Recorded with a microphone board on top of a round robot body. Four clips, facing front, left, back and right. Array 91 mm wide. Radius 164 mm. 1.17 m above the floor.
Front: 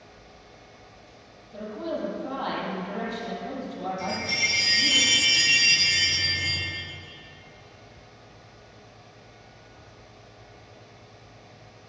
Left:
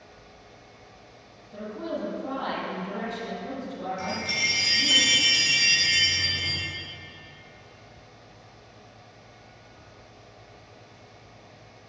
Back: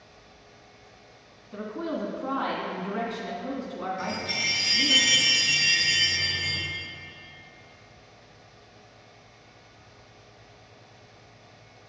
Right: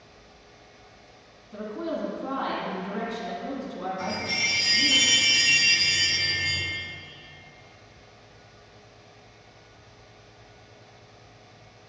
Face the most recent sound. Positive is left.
turn(degrees=105)